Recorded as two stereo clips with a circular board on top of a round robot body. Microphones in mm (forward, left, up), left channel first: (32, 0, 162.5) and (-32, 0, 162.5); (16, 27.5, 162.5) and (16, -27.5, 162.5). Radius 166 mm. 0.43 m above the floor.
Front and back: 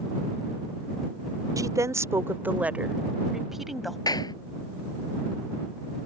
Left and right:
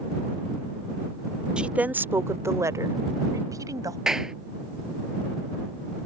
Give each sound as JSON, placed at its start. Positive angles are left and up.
{"t": 1.6, "sound": "a woman speaking", "azimuth_deg": -160}
{"t": 4.1, "sound": "a clap", "azimuth_deg": -10}